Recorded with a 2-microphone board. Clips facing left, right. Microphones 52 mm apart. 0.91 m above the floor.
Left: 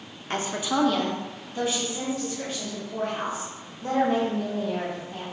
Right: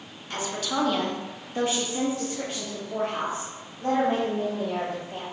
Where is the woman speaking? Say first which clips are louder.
Left 3 dB; 40° left (ahead or behind), 0.8 m; by 5.2 s 80° right, 4 m.